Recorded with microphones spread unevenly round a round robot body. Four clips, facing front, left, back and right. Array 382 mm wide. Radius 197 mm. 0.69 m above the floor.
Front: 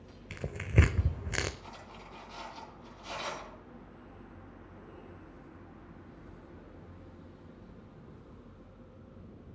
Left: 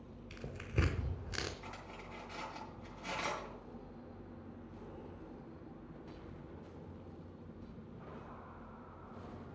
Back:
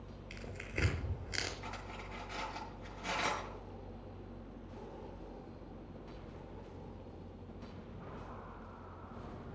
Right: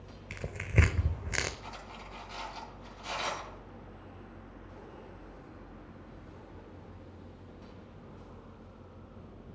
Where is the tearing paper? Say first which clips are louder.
Right 8 dB, front 12 dB; 25° right, 1.0 m.